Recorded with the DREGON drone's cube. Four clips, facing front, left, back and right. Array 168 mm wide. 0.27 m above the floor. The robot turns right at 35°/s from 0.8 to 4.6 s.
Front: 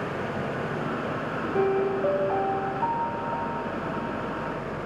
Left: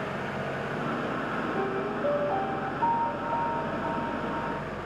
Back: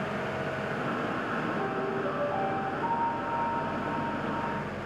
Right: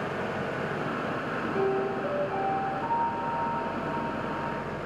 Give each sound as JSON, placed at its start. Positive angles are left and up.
{"t": 1.5, "sound": "a piano", "azimuth_deg": -5, "distance_m": 2.5}